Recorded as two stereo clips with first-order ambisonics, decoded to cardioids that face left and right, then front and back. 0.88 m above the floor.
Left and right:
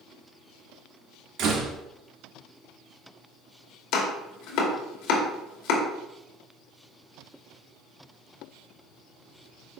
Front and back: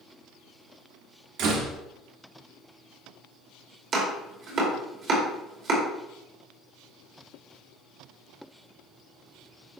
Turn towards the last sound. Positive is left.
turn(degrees=125)